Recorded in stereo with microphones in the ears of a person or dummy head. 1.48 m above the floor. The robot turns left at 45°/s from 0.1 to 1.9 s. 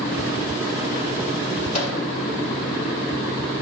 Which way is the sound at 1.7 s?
40° left (ahead or behind).